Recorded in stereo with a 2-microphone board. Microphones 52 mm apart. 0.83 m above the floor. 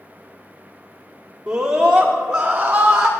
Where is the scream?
15° right (ahead or behind), 1.7 m; by 3.1 s 20° right (ahead or behind), 3 m.